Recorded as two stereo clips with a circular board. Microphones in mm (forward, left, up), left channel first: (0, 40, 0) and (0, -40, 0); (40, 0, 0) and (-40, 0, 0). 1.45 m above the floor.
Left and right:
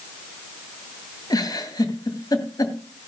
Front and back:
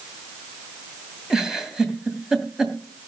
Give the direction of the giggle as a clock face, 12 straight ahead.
9 o'clock.